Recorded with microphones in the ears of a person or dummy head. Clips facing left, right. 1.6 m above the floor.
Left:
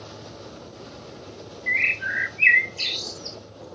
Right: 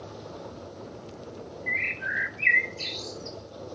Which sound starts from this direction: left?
A bird, at 1.7 s.